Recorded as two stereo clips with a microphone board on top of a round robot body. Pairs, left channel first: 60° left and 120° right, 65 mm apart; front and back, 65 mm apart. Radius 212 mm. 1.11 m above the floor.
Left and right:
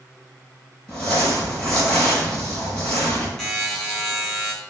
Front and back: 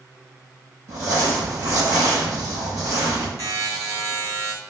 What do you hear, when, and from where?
0.9 s crumpling: 135° left, 5.5 m
3.4 s a buzzer: 145° left, 4 m